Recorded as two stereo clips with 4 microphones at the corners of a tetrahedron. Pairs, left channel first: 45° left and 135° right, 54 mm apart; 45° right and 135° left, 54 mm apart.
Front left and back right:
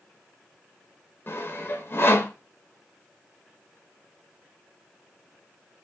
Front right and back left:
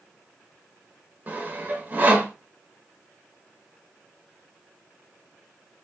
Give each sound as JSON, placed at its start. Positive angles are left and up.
{"t": 1.3, "sound": "sawing", "azimuth_deg": 80, "distance_m": 0.7}